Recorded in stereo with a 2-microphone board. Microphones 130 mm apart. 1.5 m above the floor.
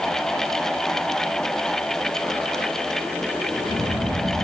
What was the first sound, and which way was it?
Only background noise.